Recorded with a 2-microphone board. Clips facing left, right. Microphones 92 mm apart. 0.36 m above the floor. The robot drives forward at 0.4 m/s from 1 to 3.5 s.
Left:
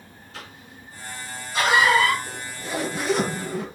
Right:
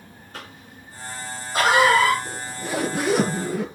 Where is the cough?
45° right (ahead or behind), 5.5 m; by 2.1 s 40° right (ahead or behind), 6 m.